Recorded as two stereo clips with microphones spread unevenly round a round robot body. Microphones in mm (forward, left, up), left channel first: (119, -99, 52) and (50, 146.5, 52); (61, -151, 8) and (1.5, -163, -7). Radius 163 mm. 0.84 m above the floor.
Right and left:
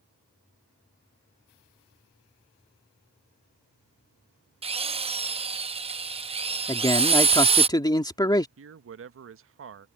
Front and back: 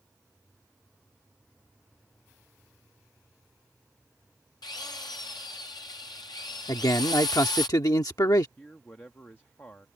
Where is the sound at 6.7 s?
Straight ahead.